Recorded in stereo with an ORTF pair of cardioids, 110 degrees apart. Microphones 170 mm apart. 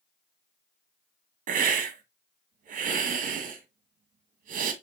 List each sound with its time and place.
1.5 s a hiss: 55° right, 1.7 m